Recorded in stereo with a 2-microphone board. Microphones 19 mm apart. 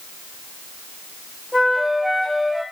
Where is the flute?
Centre (ahead or behind), 1.2 m.